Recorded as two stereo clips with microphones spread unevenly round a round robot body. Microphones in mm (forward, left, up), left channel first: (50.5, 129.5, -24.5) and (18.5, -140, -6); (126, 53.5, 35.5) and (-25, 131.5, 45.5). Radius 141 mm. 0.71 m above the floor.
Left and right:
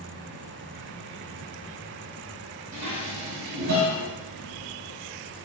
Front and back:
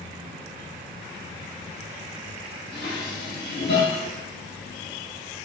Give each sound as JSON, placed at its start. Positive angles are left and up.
{"t": 2.7, "sound": "dishes clattering", "azimuth_deg": -75, "distance_m": 3.0}